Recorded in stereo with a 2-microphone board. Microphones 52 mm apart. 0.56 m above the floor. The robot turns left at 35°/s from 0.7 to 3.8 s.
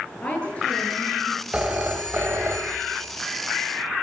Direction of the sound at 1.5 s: 25° right.